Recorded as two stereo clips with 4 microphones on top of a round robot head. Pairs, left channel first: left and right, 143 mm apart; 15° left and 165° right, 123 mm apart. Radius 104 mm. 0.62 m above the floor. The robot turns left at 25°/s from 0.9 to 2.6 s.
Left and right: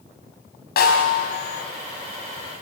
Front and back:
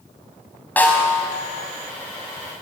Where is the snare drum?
90° left, 4 m; by 1.3 s 80° left, 4 m.